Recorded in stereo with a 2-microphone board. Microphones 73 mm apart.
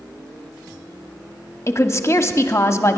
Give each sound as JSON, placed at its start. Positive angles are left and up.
{"t": 1.7, "sound": "a woman speaking", "side_deg": 35, "distance_m": 0.8}